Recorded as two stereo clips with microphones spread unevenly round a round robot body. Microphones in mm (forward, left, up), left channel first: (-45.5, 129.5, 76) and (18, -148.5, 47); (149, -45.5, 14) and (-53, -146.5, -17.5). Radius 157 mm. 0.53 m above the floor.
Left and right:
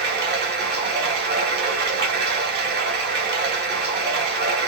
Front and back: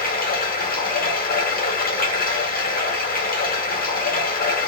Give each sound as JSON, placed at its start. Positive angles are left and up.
{"t": 0.0, "sound": "running water", "azimuth_deg": -25, "distance_m": 1.1}